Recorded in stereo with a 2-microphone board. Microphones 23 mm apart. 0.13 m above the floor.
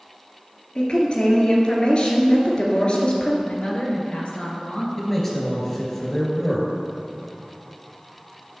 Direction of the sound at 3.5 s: 50° left (ahead or behind).